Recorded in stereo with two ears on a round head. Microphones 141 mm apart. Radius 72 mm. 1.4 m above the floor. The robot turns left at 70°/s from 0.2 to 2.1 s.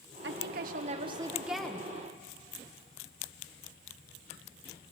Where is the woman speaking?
85° right, 1.3 m; by 1.9 s 155° left, 1.3 m.